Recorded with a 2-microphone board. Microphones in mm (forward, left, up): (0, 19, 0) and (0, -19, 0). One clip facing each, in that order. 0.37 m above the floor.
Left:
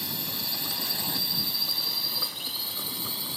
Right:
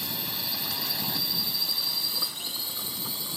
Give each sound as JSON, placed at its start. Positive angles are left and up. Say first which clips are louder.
{"t": 0.0, "sound": "a drone", "louder": "right 1 dB", "side_deg": -15}